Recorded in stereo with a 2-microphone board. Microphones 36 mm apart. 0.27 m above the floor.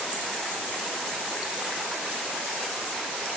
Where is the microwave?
I don't hear a microwave.